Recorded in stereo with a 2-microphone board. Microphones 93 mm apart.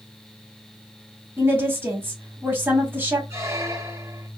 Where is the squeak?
30° right (ahead or behind), 0.7 m.